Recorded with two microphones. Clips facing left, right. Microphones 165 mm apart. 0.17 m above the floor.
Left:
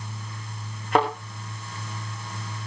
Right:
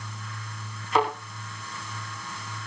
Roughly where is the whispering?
No whispering in this recording.